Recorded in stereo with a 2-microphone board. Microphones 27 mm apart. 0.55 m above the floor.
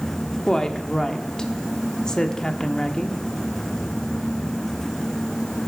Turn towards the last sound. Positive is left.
turn(degrees=25)  # may be behind; listen again after turning